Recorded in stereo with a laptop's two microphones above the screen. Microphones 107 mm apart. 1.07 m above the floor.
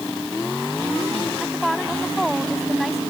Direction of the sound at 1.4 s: Centre (ahead or behind).